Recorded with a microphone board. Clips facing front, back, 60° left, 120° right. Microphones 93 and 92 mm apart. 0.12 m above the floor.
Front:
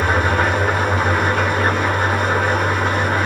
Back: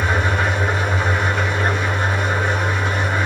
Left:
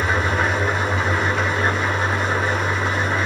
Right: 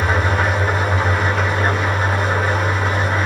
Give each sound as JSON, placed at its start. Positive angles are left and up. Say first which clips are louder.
{"t": 0.0, "sound": "an engine running", "louder": "front 3 dB, right 2 dB", "azimuth_deg": -35, "distance_m": 9.0}